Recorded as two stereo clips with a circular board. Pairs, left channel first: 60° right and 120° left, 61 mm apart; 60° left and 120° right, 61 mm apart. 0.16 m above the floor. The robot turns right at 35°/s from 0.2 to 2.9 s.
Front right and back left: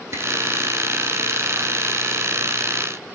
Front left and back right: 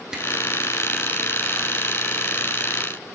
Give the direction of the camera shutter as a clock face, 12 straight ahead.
7 o'clock.